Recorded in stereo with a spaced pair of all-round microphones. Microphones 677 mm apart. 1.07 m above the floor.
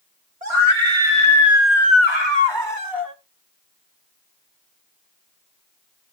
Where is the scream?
55° right (ahead or behind), 3 m; by 3.1 s 25° right (ahead or behind), 2.5 m.